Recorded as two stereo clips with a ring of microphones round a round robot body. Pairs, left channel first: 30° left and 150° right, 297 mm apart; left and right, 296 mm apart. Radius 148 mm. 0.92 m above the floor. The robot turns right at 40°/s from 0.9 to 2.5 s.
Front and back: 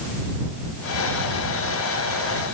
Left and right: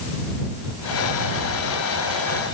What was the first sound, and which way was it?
Only background noise.